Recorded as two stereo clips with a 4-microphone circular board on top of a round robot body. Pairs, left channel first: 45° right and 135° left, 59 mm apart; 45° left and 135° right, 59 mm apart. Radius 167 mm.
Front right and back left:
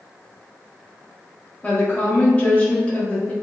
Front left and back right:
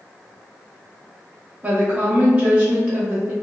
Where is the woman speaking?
85° right, 0.8 m.